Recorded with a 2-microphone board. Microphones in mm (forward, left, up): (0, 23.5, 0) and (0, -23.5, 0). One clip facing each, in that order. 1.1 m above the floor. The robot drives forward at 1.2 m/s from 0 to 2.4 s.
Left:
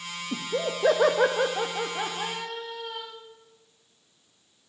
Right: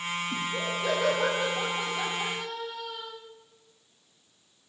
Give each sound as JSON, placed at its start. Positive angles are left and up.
{"t": 0.3, "sound": "laughter", "side_deg": 55, "distance_m": 1.5}